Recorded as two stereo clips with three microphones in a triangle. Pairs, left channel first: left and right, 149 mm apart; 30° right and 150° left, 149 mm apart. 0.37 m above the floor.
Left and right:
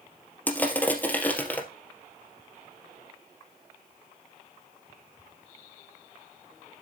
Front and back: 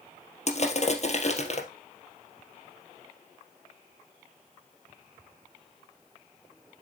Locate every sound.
0.5 s crushing: 10° left, 2.5 m